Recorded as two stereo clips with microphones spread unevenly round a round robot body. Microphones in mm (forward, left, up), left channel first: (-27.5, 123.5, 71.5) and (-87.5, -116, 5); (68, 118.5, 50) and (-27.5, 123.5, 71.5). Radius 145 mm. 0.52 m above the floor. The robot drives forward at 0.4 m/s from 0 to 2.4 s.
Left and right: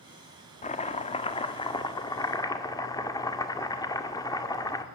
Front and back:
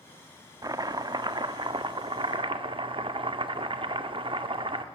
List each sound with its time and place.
0.6 s chopping: 145° left, 1.5 m; by 4.8 s 160° left, 1.8 m